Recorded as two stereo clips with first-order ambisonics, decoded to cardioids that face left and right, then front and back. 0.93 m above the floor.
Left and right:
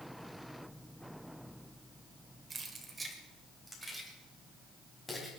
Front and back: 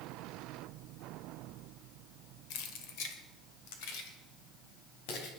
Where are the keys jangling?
15° right, 2 m; by 5.3 s 15° left, 4.5 m.